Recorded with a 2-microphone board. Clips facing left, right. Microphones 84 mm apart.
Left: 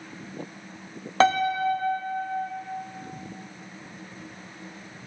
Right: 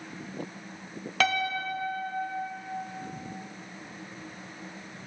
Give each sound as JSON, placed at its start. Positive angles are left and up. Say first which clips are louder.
{"t": 1.2, "sound": "a piano", "louder": "left 7 dB", "side_deg": 35, "distance_m": 0.5}